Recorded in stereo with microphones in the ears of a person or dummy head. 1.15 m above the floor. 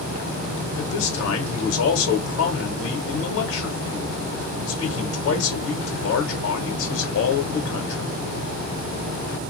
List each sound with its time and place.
0.8 s a man speaking: 90° left, 1.1 m